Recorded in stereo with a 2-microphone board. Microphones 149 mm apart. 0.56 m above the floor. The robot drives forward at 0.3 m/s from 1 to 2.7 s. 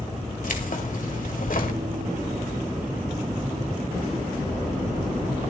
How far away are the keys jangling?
About 1.6 m.